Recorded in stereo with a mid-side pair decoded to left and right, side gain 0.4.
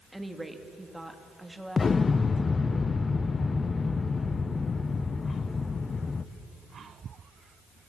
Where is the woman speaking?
10° right, 2.5 m.